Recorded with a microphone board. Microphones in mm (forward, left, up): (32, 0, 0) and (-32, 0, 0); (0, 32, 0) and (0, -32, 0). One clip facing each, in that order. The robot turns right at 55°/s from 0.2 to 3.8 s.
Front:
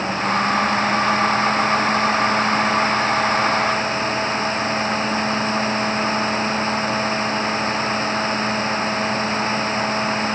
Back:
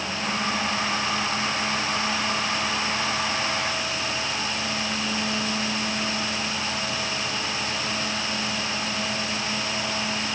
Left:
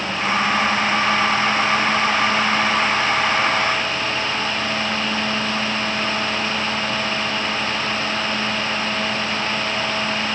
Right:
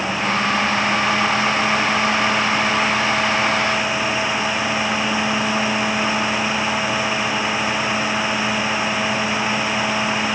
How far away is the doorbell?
No doorbell in this recording.